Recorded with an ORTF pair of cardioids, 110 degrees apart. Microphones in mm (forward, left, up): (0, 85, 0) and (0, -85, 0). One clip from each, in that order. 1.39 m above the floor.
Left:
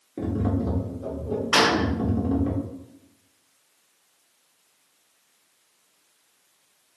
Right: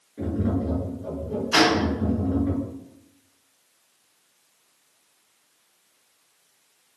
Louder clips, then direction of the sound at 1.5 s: Even; 40° left.